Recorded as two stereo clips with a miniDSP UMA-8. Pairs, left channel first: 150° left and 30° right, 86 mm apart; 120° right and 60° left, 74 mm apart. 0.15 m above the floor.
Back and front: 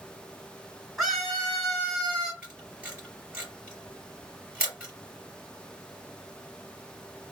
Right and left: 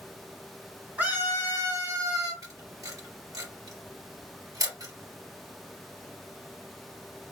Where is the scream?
60° left, 1.8 m; by 2.3 s 65° left, 3 m.